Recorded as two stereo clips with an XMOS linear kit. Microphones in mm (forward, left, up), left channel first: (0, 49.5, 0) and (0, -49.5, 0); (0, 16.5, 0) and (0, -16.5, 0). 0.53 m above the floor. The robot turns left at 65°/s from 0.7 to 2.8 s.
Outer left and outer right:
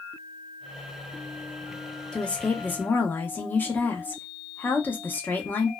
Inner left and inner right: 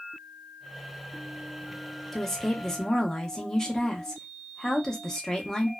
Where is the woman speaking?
5° left (ahead or behind), 0.7 m; by 5.7 s 20° left (ahead or behind), 0.7 m.